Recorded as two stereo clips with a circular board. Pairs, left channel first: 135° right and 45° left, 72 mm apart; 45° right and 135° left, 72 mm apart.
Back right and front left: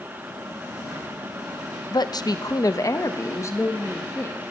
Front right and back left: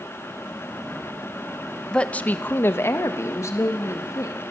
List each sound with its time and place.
1.9 s a woman speaking: 125° right, 0.8 m; by 4.4 s 85° right, 2 m